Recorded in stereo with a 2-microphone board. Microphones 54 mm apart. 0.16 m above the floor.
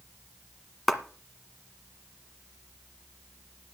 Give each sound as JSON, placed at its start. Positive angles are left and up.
{"t": 0.9, "sound": "a clap", "side_deg": 0, "distance_m": 1.6}